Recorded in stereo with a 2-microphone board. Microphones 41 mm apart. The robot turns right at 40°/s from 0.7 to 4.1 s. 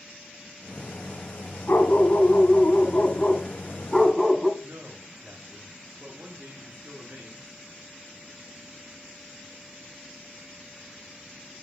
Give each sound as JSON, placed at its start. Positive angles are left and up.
{"t": 1.7, "sound": "a dog barking", "azimuth_deg": 85, "distance_m": 2.5}
{"t": 4.6, "sound": "a man speaking", "side_deg": -50, "distance_m": 2.0}